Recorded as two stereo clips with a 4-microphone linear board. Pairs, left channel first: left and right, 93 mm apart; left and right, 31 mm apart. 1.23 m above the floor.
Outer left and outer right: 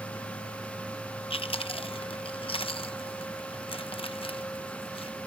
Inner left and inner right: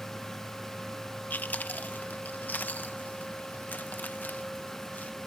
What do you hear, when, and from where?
1.3 s chewing: 75° left (ahead or behind)